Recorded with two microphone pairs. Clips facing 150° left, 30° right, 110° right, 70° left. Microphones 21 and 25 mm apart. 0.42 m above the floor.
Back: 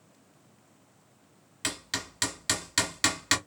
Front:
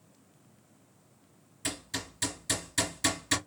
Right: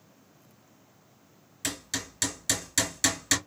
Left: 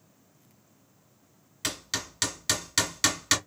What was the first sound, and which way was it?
Hammering, 135° left.